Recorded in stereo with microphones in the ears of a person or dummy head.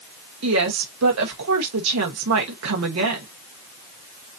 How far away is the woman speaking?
About 1.2 m.